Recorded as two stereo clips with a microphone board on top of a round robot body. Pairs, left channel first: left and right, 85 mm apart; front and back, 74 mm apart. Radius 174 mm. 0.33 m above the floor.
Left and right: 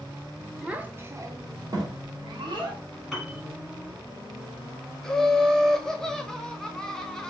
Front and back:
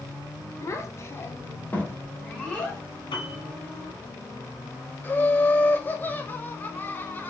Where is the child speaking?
15° right, 0.8 m; by 2.8 s 75° right, 1.6 m.